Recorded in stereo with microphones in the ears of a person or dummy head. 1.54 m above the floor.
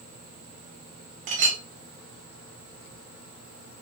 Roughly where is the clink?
Right.